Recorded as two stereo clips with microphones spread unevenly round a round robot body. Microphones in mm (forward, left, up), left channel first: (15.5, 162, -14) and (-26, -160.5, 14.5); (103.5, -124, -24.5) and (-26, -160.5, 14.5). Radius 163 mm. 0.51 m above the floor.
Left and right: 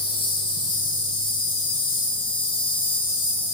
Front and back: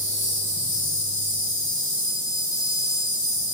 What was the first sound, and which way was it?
An insect, 155° left.